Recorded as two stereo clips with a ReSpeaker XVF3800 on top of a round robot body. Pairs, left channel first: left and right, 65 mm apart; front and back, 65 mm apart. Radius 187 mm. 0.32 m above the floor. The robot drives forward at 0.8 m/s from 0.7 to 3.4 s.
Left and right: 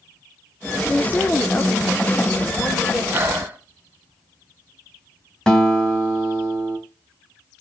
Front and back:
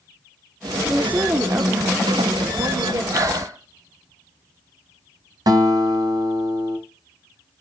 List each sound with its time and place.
0.9 s a woman speaking: 125° left, 1.2 m; by 3.0 s 170° left, 2.5 m
3.1 s breathing: 150° right, 3 m; by 3.6 s 155° right, 3.5 m
5.5 s a guitar: 170° left, 3 m